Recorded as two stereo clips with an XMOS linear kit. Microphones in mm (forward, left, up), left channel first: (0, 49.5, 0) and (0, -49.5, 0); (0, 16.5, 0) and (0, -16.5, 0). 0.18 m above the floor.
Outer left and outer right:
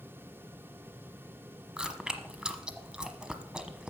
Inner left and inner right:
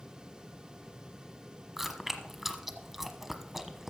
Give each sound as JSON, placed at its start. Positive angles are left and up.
{"t": 1.8, "sound": "chewing", "side_deg": -5, "distance_m": 1.1}